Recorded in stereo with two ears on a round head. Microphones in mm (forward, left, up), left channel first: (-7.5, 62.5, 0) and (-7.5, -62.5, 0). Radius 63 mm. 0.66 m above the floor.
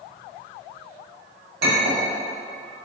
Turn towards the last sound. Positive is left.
turn(degrees=-80)